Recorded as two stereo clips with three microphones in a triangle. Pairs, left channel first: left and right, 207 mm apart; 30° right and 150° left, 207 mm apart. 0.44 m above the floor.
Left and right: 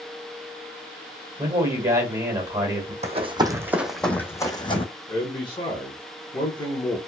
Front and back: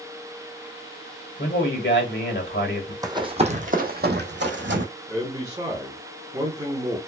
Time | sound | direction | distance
1.4 | a man speaking | 15° right | 1.4 m
3.0 | running footsteps | 140° right | 0.8 m
5.1 | a man speaking | 110° left | 0.8 m